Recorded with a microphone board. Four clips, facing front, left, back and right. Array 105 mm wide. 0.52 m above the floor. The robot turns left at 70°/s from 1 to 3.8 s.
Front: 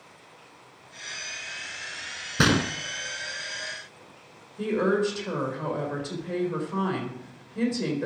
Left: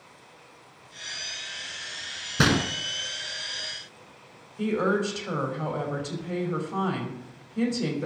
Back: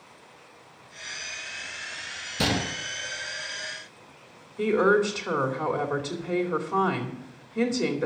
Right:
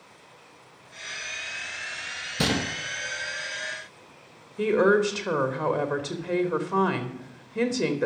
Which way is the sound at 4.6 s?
105° right.